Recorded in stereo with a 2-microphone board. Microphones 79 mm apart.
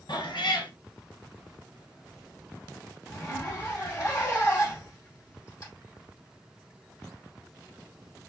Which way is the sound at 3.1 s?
35° left (ahead or behind).